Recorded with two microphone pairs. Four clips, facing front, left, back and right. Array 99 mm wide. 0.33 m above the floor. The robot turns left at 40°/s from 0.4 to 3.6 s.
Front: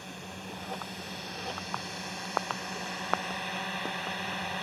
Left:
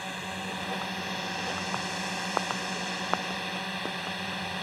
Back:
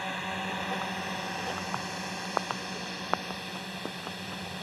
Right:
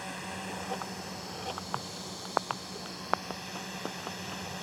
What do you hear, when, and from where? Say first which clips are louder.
0.0 s a drone: left 3 dB, back 9 dB; 165° left; by 4.6 s 40° left